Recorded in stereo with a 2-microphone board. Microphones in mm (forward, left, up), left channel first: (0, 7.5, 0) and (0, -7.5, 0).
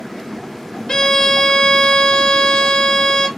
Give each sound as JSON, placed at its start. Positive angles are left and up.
{"t": 0.9, "sound": "a violin", "side_deg": 55, "distance_m": 0.9}